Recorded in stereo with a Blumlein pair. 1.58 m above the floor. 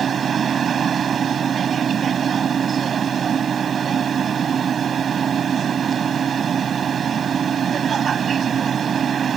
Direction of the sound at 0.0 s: 20° right.